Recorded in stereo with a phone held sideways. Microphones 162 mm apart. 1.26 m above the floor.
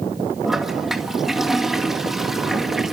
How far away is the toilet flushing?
About 2 m.